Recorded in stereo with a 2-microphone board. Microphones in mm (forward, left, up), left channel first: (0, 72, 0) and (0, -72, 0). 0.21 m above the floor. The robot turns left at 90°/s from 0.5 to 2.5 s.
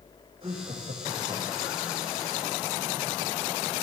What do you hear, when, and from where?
0.4 s laughter: 40° right, 7.5 m; by 1.9 s 165° right, 7.5 m